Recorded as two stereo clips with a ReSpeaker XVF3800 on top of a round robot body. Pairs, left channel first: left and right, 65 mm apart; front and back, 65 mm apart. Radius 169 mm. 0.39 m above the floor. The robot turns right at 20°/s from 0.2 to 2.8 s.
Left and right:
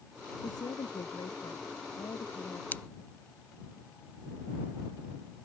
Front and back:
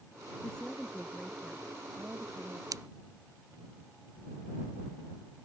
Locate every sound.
0.4 s a woman speaking: 75° left; by 2.6 s 120° left
2.7 s scissors: 150° left; by 2.8 s 155° left